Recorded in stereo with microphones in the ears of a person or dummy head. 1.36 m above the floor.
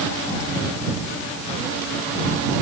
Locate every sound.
Only background noise.